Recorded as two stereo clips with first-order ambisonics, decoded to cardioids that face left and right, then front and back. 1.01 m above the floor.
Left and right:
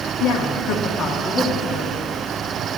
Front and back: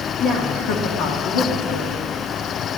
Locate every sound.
0.2 s a woman speaking: 60° left, 1.4 m; by 1.9 s 10° left, 2 m